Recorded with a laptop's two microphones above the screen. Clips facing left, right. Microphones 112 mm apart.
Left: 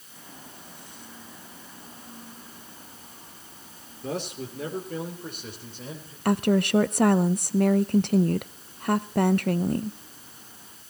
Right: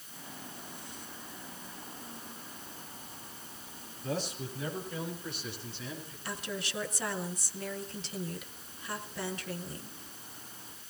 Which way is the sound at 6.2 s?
60° left (ahead or behind).